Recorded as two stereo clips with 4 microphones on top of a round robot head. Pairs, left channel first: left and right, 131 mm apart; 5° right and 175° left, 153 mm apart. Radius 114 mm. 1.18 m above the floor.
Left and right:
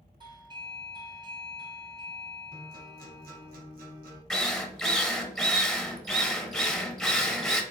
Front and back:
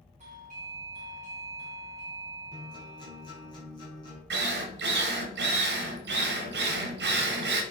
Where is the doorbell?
140° right, 1.9 m.